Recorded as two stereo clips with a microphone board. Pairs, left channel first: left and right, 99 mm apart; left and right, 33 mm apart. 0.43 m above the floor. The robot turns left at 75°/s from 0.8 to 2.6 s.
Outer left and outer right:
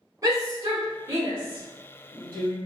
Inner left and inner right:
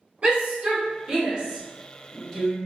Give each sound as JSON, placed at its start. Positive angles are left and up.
{"t": 0.2, "sound": "a shout", "side_deg": -40, "distance_m": 1.1}